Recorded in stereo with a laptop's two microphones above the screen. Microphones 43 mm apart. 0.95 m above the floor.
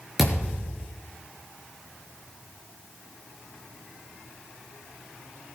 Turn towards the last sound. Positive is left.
turn(degrees=-5)  # may be behind; listen again after turning